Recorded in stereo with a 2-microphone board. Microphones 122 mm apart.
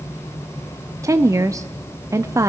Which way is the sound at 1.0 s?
25° right (ahead or behind).